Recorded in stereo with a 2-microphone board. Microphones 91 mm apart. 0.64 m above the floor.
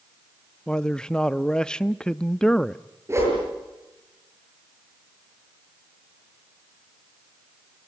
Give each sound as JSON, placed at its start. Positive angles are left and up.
{"t": 0.7, "sound": "a man speaking", "side_deg": 10, "distance_m": 0.5}
{"t": 3.1, "sound": "a whoosh", "side_deg": -30, "distance_m": 7.5}